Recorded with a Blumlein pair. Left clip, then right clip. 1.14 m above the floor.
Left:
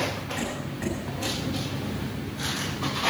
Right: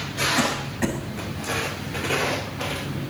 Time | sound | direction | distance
0.4 | a cough | 70° right | 6.5 m